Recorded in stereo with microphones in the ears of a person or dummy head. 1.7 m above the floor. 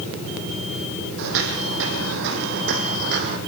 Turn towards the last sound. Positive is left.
turn(degrees=-50)  # may be behind; listen again after turning